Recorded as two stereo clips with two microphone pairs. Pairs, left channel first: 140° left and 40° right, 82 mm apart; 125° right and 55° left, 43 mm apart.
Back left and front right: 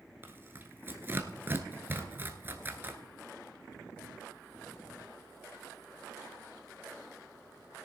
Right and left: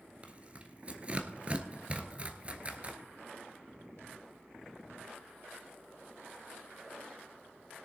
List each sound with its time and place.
0.2 s tearing paper: 5° left, 1.1 m